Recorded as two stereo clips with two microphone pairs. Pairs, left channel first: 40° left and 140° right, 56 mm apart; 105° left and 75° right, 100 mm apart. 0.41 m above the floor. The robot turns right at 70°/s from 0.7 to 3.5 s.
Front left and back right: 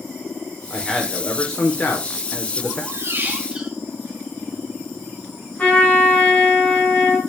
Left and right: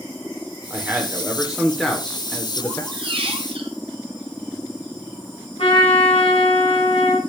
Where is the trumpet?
105° left, 2.5 m.